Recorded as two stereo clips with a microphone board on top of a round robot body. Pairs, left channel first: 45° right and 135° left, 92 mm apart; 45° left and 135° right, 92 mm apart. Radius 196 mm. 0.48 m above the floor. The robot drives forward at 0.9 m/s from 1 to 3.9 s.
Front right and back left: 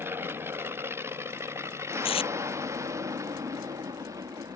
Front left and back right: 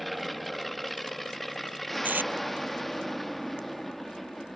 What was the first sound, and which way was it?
An aircraft, 135° left.